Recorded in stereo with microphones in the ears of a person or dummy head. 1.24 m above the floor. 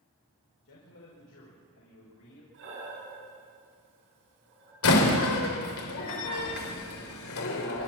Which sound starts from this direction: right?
Breathing, at 2.5 s.